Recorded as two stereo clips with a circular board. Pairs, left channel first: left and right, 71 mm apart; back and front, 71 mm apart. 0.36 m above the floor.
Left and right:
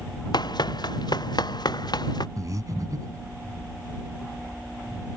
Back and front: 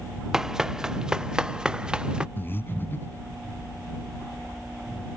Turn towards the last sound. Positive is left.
turn(degrees=-125)